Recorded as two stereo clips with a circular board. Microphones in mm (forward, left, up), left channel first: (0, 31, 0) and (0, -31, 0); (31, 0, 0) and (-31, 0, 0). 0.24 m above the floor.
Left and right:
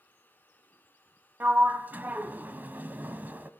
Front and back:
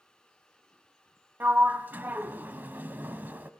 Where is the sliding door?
135° right, 1.0 m.